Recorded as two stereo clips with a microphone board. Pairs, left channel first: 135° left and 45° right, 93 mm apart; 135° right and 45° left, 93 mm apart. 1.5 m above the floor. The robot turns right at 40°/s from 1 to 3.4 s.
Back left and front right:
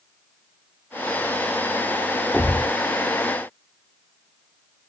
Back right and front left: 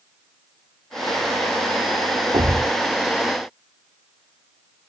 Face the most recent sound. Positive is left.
turn(degrees=95)